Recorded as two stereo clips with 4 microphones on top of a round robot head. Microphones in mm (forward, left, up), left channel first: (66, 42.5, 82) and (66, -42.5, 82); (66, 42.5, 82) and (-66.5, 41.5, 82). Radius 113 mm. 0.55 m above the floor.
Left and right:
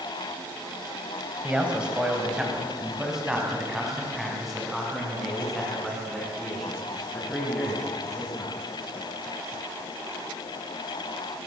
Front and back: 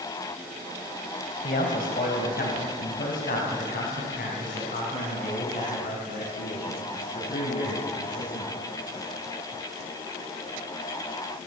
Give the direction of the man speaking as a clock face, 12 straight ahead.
1 o'clock.